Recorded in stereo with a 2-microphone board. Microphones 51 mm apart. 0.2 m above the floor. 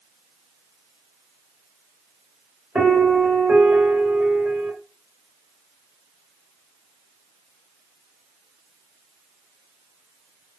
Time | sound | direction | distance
2.8 | a piano | 25° right (ahead or behind) | 1.9 m